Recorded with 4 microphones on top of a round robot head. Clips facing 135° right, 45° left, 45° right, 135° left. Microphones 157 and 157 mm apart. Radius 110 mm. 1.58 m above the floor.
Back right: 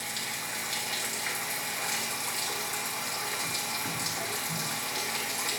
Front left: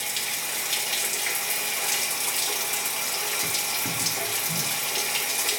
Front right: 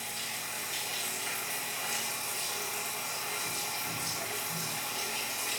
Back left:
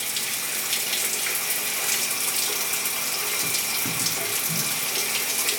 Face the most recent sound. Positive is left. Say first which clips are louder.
# front left 2 dB, back left 5 dB
turn(degrees=115)